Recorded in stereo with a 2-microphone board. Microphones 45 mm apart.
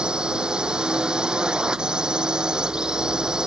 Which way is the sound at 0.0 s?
20° right (ahead or behind).